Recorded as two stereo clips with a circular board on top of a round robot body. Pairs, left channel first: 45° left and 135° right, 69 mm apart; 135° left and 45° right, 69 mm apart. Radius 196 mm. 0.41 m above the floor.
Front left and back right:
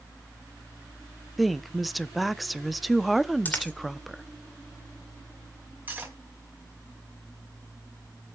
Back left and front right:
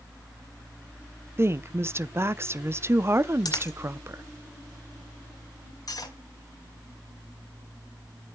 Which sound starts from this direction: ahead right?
A woman speaking, at 1.4 s.